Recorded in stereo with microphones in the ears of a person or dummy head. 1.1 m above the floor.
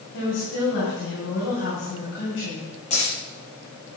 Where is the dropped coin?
35° left (ahead or behind), 6 m.